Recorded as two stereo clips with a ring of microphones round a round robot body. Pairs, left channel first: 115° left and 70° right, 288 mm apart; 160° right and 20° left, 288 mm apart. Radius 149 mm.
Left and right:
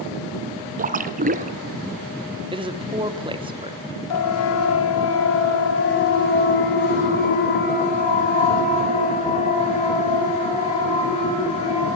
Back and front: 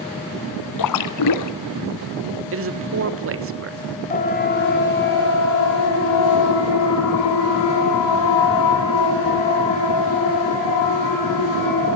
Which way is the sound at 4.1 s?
140° left.